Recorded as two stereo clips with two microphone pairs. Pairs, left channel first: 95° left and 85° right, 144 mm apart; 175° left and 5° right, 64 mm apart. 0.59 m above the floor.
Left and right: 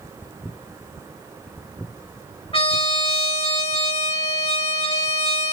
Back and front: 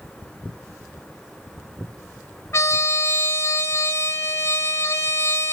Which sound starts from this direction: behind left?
A trumpet, at 2.5 s.